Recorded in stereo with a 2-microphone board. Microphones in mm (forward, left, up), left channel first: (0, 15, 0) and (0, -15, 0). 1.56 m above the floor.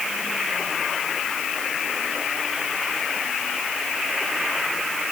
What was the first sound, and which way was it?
Only background noise.